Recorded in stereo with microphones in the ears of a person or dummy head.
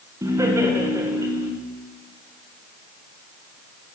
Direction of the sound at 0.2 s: 10° right (ahead or behind).